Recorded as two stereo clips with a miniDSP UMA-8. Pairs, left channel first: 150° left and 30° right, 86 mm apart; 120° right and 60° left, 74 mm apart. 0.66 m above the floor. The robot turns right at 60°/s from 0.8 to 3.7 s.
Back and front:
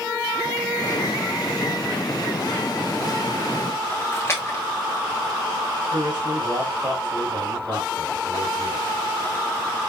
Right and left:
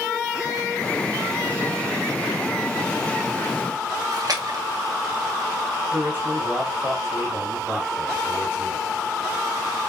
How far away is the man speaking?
About 3.5 m.